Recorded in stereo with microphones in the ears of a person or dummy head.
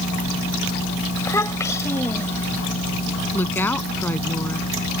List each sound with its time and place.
1.2 s a child speaking: 15° left (ahead or behind)
3.3 s a woman speaking: 10° left (ahead or behind)